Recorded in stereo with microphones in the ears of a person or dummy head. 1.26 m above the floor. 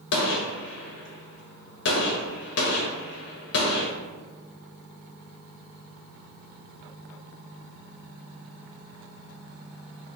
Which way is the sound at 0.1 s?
60° left (ahead or behind).